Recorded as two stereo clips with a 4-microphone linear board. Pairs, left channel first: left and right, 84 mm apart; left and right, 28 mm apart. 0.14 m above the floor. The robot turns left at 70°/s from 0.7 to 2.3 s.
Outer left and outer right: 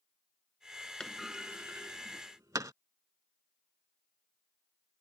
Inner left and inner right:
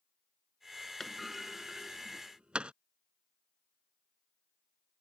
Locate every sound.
1.0 s a clunk: 10° left (ahead or behind); by 2.7 s 40° right (ahead or behind)